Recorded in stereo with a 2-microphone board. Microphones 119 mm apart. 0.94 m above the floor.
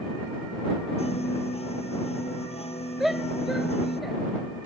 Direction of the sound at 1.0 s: 60° left (ahead or behind).